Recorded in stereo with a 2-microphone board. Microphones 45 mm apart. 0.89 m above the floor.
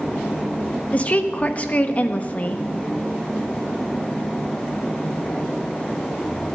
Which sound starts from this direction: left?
A woman speaking, at 0.9 s.